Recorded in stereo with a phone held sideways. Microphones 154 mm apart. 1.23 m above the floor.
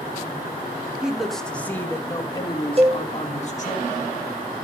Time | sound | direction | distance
1.0 | a man speaking | 5° right (ahead or behind) | 1.5 m
2.8 | a cowbell | 40° right (ahead or behind) | 1.2 m